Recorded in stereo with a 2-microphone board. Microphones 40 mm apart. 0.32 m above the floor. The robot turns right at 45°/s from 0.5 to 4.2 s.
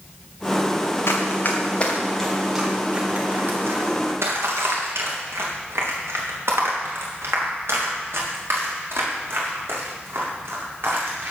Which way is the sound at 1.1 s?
65° left (ahead or behind).